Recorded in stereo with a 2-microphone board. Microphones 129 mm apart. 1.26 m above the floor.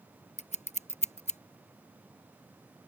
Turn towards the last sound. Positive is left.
turn(degrees=70)  # may be behind; listen again after turning